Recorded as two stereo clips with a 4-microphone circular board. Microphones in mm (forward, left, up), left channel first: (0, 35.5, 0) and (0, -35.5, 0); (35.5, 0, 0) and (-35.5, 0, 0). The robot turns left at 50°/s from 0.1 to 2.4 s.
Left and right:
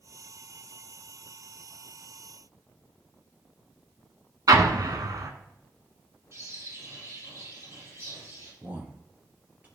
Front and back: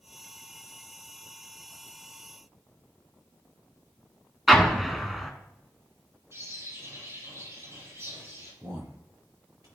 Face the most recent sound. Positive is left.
turn(degrees=-155)